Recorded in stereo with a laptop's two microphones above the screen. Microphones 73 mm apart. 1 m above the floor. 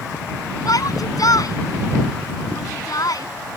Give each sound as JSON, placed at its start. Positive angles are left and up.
{"t": 0.7, "sound": "a shout", "side_deg": 60}